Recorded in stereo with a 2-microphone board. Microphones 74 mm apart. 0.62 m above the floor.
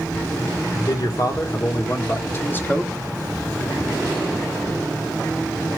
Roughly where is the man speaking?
Left.